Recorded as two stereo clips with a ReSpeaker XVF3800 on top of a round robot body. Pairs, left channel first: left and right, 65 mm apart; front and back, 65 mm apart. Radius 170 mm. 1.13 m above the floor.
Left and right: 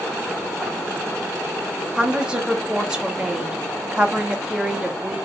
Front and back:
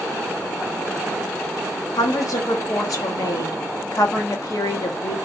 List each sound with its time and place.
2.0 s a woman speaking: 15° right, 0.9 m